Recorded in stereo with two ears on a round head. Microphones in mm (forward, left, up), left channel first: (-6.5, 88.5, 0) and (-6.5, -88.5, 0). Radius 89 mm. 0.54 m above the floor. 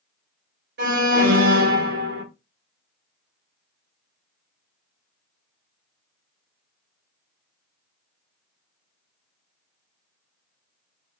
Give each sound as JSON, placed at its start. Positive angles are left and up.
{"t": 0.8, "sound": "an alarm", "side_deg": -60, "distance_m": 3.5}